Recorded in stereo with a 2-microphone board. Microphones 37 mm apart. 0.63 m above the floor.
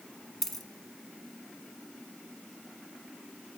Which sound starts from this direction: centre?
A dropped coin, at 0.4 s.